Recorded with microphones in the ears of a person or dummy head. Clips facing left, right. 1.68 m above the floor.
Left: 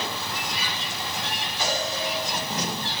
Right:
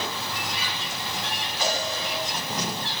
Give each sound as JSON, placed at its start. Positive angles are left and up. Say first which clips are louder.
{"t": 1.6, "sound": "a cowbell", "louder": "even", "side_deg": -60, "distance_m": 3.5}